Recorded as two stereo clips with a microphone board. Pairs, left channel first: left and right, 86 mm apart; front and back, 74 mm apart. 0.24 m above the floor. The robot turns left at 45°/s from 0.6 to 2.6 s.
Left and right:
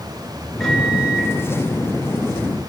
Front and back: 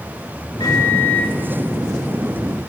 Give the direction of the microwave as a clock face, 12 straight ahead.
12 o'clock.